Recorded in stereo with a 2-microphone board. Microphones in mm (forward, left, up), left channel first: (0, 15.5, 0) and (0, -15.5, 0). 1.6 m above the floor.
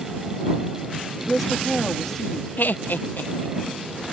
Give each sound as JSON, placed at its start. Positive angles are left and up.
{"t": 1.3, "sound": "a woman speaking", "side_deg": 0}
{"t": 2.6, "sound": "laughter", "side_deg": 80}